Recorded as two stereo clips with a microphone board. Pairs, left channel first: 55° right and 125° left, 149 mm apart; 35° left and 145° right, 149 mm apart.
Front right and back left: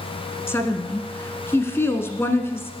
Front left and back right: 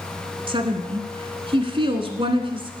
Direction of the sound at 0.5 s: 120° right.